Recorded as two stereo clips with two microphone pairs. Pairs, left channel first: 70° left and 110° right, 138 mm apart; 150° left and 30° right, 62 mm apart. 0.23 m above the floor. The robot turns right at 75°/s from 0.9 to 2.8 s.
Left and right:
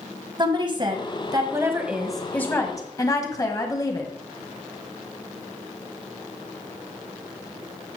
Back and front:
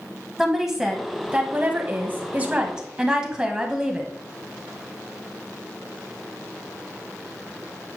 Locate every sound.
0.4 s a woman speaking: 110° right, 1.5 m; by 4.1 s 35° left, 1.5 m